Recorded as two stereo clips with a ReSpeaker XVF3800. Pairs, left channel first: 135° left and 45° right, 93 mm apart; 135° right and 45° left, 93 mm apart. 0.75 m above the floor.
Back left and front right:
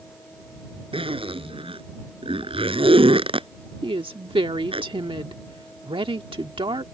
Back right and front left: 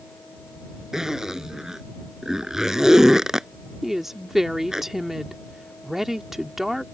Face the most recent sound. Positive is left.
turn(degrees=-40)